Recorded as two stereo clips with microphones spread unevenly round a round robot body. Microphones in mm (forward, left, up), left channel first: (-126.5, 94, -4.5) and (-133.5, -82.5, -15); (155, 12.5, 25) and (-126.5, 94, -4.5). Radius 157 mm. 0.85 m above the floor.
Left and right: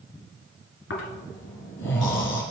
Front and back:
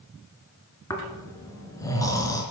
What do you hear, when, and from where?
0.9 s snoring: 60° left, 3.5 m